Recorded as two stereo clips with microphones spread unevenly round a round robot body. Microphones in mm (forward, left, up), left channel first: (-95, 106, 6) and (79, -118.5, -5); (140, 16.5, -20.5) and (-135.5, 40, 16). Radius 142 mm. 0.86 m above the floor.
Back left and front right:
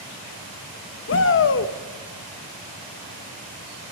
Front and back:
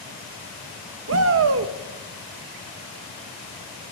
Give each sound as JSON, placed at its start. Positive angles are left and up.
{"t": 1.1, "sound": "a shout", "azimuth_deg": 150, "distance_m": 1.2}